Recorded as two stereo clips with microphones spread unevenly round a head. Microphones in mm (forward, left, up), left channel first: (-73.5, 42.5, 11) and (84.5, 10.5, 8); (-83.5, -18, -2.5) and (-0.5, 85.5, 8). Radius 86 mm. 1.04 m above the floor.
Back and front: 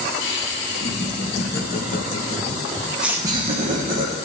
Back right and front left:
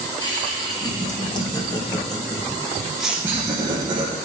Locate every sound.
0.2 s laughter: straight behind, 2.5 m; by 4.2 s 10° right, 1.2 m